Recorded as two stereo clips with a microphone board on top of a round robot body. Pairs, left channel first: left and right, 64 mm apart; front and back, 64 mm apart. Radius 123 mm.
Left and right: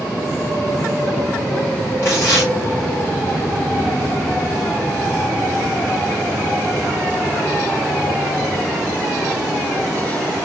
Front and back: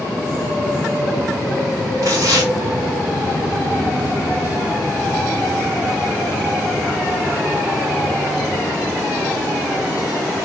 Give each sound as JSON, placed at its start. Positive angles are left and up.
{"t": 2.0, "sound": "tearing paper", "azimuth_deg": 145, "distance_m": 2.5}